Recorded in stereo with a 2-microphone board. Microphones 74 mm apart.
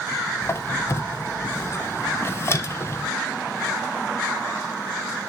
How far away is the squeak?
About 0.5 m.